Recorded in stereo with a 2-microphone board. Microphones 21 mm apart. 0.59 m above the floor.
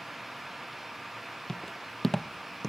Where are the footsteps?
35° left (ahead or behind), 0.9 m; by 2.7 s 10° left (ahead or behind), 1.3 m.